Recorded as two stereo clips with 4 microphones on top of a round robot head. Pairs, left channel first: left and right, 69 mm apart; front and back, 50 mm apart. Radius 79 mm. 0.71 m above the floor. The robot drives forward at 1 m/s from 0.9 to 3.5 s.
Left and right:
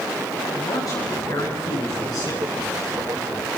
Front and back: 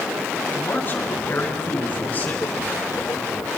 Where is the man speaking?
55° left, 9.5 m; by 2.5 s 60° left, 8.5 m.